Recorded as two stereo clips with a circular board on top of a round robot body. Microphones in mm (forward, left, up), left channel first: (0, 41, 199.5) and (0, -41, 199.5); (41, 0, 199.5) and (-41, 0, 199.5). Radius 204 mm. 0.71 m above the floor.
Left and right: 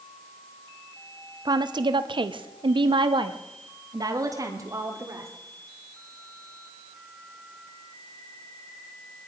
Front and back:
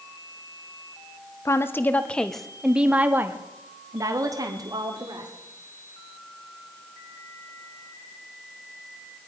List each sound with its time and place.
1.4 s a woman speaking: 55° right, 1.2 m; by 5.3 s 145° right, 2 m